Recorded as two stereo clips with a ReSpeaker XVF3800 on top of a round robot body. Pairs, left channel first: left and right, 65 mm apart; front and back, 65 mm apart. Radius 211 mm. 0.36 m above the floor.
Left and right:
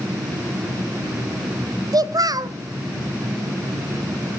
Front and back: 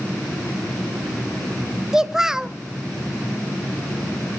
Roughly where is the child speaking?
Right.